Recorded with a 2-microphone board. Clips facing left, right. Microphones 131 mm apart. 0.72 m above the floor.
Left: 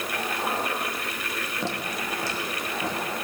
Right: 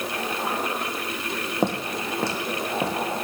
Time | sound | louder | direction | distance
1.6 | footsteps | right 7 dB | 55° right (ahead or behind) | 1.5 m